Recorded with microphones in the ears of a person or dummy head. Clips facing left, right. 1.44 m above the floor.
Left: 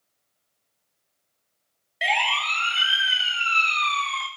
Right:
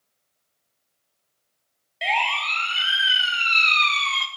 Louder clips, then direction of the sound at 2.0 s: Right 1 dB; 10° left (ahead or behind).